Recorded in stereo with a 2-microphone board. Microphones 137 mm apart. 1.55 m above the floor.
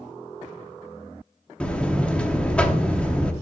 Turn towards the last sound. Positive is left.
turn(degrees=5)  # may be behind; listen again after turning